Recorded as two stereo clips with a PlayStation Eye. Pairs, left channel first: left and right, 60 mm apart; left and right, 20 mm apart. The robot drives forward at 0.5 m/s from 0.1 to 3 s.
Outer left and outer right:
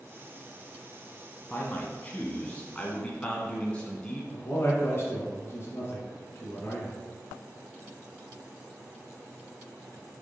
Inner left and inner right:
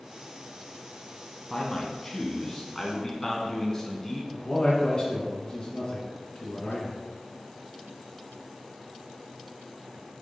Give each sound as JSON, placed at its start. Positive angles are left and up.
{"t": 1.5, "sound": "a man speaking", "side_deg": 25, "distance_m": 1.0}
{"t": 4.3, "sound": "a man speaking", "side_deg": 40, "distance_m": 1.5}